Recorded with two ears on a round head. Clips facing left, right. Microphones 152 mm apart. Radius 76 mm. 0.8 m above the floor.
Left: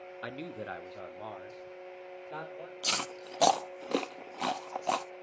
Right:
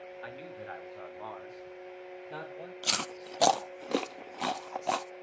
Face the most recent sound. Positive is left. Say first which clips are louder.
# even
turn(degrees=-5)  # may be behind; listen again after turning